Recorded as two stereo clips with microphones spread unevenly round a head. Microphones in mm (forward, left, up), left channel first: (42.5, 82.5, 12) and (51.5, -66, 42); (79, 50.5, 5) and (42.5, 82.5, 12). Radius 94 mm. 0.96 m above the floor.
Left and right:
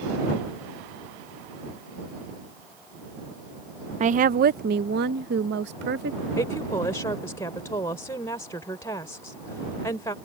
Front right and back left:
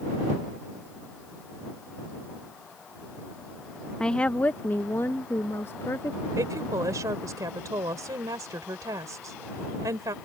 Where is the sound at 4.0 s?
90° right.